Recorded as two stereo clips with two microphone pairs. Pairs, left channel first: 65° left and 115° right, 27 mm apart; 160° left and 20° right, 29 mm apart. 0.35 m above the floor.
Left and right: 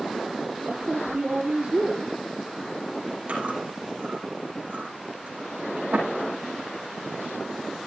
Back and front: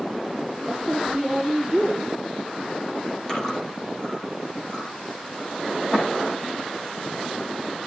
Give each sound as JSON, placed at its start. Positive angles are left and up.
{"t": 0.7, "sound": "a woman speaking", "azimuth_deg": -90, "distance_m": 9.0}
{"t": 3.3, "sound": "chewing", "azimuth_deg": -125, "distance_m": 8.5}